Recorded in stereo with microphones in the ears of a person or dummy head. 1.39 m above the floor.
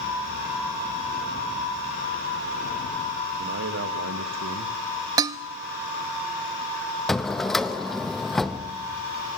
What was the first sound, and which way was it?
A man speaking, 60° right (ahead or behind).